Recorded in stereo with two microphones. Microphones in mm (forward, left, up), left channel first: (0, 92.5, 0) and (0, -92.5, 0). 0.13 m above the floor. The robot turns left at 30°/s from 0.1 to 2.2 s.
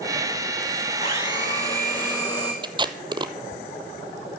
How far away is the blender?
About 3.5 m.